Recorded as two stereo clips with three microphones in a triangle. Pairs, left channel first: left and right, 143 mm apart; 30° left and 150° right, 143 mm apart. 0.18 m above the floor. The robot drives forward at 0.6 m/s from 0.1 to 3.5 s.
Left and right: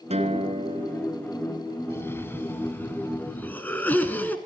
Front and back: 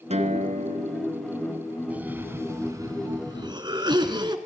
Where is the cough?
140° left, 1.5 m; by 4.4 s 165° left, 2 m.